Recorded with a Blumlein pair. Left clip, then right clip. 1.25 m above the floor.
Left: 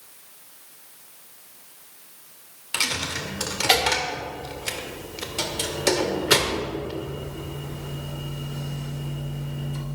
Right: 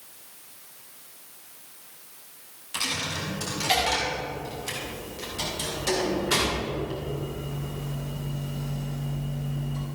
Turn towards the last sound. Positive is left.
turn(degrees=60)